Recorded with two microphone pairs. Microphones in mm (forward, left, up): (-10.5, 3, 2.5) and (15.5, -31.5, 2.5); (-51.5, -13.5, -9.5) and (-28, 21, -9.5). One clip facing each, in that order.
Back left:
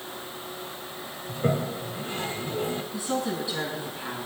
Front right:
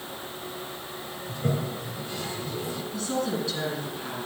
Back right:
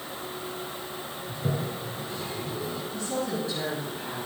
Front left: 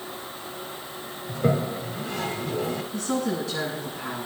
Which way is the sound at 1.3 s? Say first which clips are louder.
Back left 3 dB, front left 8 dB; 75° left.